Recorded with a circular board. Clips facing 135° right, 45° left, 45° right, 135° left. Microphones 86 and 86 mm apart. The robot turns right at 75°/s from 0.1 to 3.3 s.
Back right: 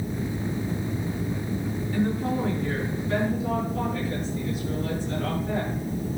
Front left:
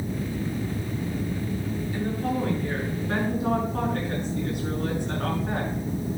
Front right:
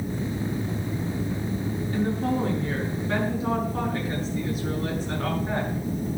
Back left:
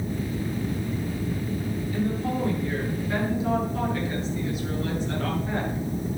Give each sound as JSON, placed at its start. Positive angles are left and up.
{"t": 1.9, "sound": "a woman speaking", "azimuth_deg": -90, "distance_m": 6.0}